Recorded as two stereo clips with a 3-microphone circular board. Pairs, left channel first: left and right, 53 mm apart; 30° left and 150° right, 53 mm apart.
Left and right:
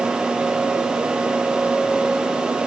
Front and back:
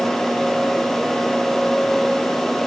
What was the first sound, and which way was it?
Only background noise.